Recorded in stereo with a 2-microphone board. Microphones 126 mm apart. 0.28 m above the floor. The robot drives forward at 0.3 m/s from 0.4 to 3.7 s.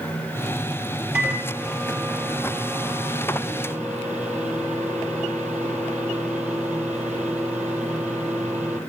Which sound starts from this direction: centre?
A microwave, at 1.1 s.